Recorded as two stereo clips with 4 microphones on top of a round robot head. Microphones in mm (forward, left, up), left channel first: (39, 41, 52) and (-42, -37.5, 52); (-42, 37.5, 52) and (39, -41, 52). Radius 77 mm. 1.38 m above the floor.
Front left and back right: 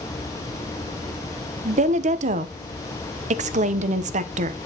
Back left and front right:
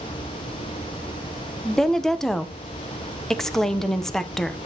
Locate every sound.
1.6 s a woman speaking: 140° right, 0.8 m